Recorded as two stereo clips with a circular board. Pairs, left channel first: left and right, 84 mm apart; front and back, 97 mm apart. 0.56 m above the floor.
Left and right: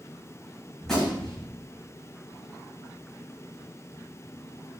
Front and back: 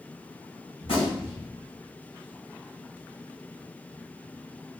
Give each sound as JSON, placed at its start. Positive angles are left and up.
{"t": 0.8, "sound": "a gunshot", "azimuth_deg": 5, "distance_m": 1.9}